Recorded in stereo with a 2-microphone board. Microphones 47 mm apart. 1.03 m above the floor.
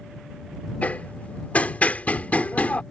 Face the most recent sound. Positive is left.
turn(degrees=30)  # may be behind; listen again after turning